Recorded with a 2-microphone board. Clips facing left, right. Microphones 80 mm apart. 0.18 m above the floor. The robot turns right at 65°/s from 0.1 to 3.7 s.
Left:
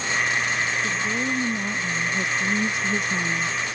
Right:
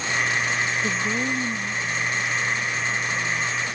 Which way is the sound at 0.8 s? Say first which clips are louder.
Right 1 dB; 25° right.